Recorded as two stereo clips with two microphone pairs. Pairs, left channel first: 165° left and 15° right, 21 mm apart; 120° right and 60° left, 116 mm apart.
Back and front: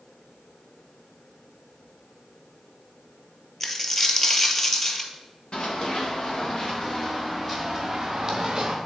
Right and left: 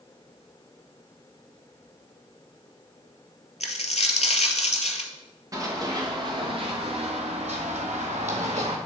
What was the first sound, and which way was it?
A dropped coin, 125° right.